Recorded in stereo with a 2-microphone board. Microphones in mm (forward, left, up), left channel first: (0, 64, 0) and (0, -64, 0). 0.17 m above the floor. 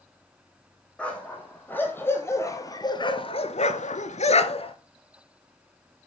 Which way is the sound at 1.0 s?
10° left (ahead or behind).